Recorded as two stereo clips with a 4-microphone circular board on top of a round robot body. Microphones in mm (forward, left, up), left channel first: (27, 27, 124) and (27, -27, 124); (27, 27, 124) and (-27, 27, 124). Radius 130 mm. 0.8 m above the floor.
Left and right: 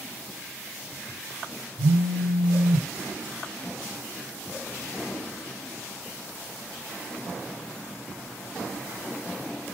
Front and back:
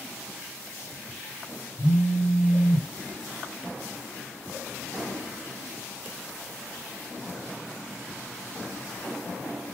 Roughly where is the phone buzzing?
Ahead right.